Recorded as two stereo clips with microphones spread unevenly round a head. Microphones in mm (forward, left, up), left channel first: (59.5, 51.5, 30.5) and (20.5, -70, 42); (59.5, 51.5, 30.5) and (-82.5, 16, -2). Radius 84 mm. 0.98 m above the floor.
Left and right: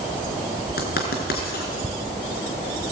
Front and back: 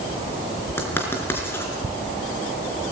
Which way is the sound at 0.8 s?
85° left.